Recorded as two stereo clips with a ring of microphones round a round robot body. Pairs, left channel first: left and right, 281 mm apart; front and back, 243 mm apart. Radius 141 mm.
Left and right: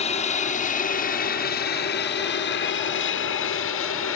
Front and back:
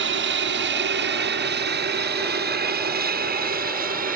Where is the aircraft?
155° left; by 4.2 s 130° left.